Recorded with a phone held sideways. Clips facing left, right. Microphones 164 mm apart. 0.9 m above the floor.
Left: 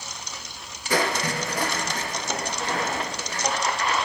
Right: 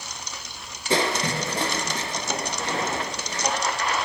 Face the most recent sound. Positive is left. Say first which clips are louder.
# right 1 dB
turn(degrees=-25)  # may be behind; listen again after turning